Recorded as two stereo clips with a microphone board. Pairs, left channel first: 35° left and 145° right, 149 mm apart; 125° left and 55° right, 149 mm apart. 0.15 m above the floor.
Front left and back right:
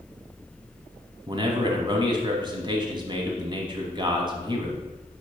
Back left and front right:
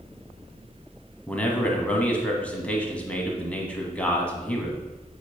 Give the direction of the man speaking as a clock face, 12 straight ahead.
5 o'clock.